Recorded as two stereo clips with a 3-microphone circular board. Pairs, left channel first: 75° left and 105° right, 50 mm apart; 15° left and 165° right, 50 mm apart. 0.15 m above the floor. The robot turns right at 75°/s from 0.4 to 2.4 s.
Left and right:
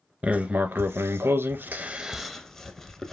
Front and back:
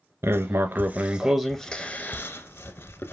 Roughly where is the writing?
Behind.